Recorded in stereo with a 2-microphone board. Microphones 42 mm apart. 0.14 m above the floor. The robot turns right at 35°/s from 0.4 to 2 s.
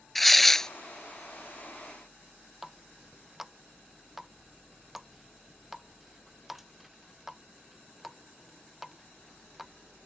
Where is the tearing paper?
5° left (ahead or behind); by 0.7 s 15° left (ahead or behind).